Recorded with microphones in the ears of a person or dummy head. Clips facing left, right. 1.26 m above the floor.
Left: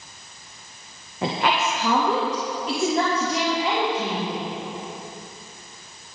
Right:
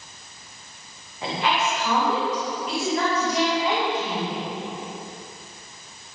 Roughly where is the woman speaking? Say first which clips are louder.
Left 2 dB; left.